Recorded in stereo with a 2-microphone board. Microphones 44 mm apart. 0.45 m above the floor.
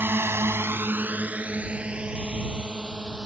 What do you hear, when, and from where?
0.0 s a drone: 55° right (ahead or behind); by 3.3 s 20° right (ahead or behind)